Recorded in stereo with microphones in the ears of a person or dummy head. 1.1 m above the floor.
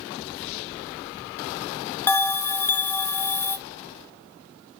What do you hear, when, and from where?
2.1 s a bell: 10° left (ahead or behind), 0.7 m